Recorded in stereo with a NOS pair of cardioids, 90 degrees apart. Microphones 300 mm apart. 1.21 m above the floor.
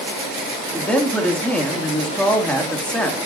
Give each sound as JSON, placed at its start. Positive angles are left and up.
{"t": 0.7, "sound": "a man speaking", "azimuth_deg": 5, "distance_m": 3.0}